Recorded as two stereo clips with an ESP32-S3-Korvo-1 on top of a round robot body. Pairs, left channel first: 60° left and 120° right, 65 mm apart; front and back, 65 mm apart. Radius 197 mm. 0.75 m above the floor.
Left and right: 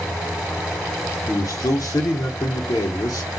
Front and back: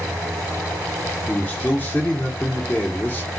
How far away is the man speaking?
About 0.8 m.